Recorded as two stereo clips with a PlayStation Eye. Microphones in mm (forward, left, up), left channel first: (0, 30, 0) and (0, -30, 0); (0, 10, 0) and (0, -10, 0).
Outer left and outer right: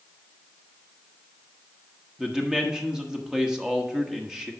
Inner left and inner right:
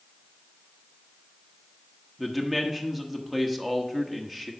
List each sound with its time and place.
2.2 s a man speaking: 10° right (ahead or behind), 1.0 m